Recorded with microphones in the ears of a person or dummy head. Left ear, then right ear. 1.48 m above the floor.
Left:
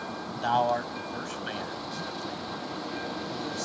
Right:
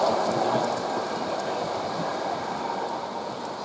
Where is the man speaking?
50° left (ahead or behind).